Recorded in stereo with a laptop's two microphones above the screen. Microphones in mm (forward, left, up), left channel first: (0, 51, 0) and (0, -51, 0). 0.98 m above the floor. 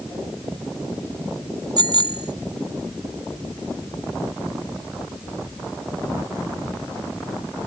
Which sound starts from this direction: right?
A bicycle bell, at 1.8 s.